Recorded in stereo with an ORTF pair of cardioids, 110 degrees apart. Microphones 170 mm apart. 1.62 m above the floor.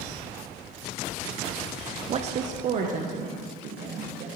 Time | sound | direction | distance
2.1 | a woman speaking | 35° right | 0.6 m